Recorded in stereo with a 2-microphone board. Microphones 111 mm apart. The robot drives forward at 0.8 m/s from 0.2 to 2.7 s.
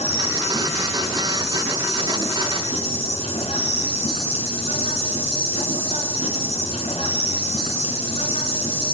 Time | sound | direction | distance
0.0 | an insect | 75° left (ahead or behind) | 6 m